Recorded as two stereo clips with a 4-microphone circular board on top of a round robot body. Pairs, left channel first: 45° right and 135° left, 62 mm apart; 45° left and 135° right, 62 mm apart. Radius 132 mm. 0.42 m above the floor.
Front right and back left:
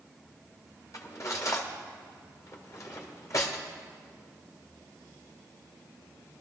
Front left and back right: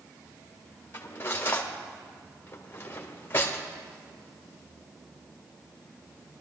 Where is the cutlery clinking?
10° right, 1.5 m.